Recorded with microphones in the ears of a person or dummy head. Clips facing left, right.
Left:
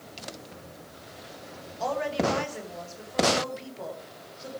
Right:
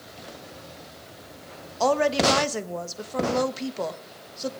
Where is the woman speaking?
60° right (ahead or behind), 1.2 m.